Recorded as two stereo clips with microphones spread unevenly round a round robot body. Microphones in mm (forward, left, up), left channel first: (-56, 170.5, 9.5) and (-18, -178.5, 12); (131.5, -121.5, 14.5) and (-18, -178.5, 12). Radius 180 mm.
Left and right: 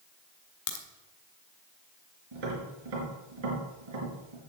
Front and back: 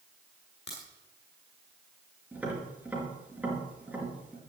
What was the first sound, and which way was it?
A crack, 75° left.